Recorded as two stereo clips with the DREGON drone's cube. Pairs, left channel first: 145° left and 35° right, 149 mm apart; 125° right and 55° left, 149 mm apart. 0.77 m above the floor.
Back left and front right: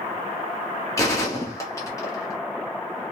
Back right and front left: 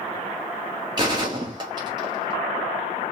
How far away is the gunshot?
About 0.8 m.